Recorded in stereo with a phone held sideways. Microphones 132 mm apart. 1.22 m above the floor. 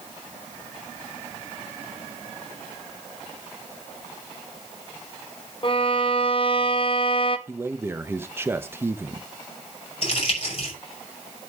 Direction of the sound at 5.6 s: 40° left (ahead or behind).